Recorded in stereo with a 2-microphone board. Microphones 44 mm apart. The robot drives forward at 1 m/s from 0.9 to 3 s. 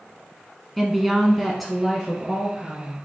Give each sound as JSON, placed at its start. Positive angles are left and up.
{"t": 0.8, "sound": "a woman speaking", "side_deg": 0, "distance_m": 1.0}